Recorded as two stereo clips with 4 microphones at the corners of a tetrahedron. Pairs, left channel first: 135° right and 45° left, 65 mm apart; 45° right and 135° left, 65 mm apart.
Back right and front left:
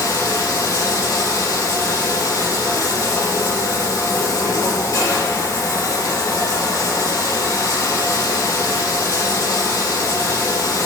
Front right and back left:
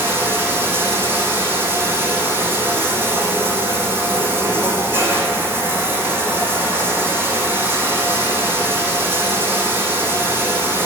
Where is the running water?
170° right, 5.5 m.